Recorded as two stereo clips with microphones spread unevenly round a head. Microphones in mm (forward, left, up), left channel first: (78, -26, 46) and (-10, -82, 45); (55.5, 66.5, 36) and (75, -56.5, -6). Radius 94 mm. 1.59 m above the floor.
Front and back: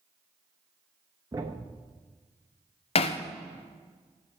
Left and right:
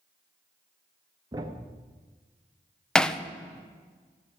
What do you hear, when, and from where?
1.3 s a thud: 155° right, 1.0 m
3.0 s hammering: 30° left, 0.7 m